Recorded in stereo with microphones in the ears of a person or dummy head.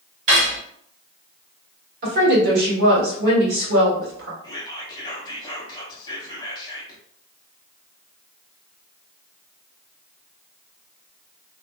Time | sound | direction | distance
0.3 | cutlery clinking | 45° right (ahead or behind) | 1.5 m
2.0 | a woman speaking | 65° right (ahead or behind) | 1.4 m
4.4 | whispering | 20° left (ahead or behind) | 1.0 m